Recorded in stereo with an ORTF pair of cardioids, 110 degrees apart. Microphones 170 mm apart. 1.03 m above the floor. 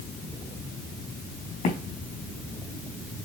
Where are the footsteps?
55° left, 4 m.